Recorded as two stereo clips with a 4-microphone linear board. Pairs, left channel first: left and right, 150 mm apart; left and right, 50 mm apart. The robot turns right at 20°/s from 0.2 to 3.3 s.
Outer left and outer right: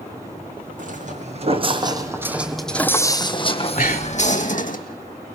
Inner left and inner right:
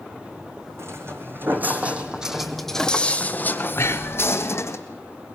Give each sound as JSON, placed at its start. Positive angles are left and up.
{"t": 0.8, "sound": "footsteps", "side_deg": -65, "distance_m": 2.5}
{"t": 3.8, "sound": "breathing", "side_deg": 75, "distance_m": 1.7}